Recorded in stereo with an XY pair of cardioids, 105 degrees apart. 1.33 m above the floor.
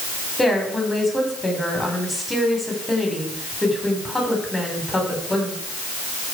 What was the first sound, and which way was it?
A woman speaking, 15° left.